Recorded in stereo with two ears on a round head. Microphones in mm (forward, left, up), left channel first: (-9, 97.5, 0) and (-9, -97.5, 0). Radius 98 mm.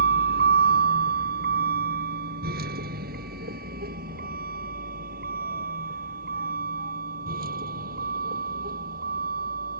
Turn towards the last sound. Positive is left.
turn(degrees=-45)  # may be behind; listen again after turning